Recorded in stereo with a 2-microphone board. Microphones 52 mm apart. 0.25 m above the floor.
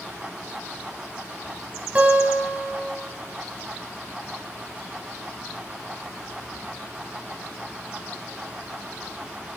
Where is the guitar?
25° right (ahead or behind), 0.8 m.